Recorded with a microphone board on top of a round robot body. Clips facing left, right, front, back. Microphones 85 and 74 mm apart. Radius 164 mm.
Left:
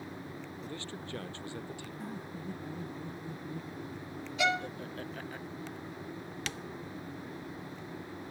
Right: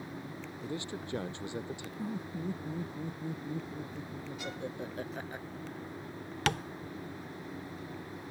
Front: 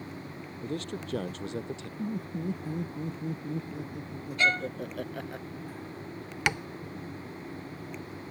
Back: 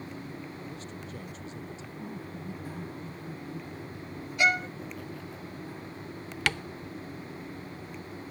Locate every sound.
0.6 s a man speaking: 15° right; by 1.9 s 20° right
2.0 s laughter: 20° right
4.4 s a violin: 100° left
6.5 s tapping: 70° right